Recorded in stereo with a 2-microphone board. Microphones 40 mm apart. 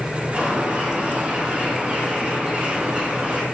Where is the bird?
35° right (ahead or behind), 7.5 m.